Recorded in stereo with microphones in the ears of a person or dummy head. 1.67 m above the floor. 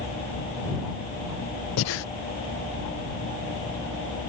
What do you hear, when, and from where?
1.8 s breathing: 65° left (ahead or behind)